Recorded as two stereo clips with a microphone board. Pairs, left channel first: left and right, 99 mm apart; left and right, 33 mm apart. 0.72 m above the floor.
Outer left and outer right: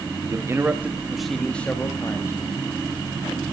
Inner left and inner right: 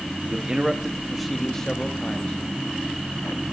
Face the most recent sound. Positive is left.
turn(degrees=35)  # may be behind; listen again after turning